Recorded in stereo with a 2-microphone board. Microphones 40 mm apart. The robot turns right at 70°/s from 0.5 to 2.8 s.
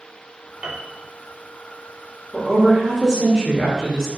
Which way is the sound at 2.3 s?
Centre (ahead or behind).